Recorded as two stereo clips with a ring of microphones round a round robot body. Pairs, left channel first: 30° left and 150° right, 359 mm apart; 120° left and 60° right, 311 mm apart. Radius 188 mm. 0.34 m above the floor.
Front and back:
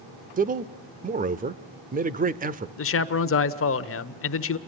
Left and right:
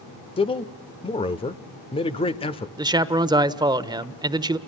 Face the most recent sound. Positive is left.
turn(degrees=10)